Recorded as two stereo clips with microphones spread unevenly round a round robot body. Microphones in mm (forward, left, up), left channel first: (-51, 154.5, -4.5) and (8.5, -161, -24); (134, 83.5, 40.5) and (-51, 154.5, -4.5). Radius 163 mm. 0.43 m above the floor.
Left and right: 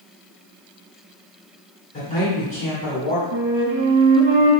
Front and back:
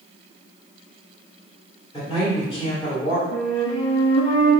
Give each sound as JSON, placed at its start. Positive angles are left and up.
{"t": 1.9, "sound": "a man speaking", "azimuth_deg": 45, "distance_m": 1.6}
{"t": 3.3, "sound": "a flute", "azimuth_deg": -25, "distance_m": 0.6}